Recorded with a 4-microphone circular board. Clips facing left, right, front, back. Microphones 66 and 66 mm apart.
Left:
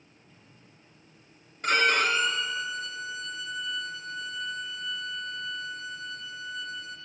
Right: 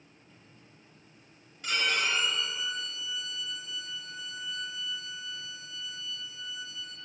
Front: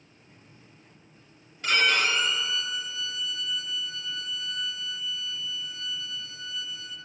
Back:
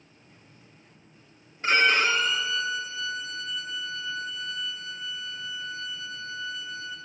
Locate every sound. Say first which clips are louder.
1.6 s a violin: left 6 dB, back 2 dB; 120° left, 2.5 m